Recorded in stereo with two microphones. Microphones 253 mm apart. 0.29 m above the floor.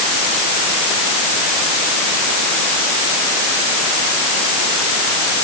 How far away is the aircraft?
No aircraft in this recording.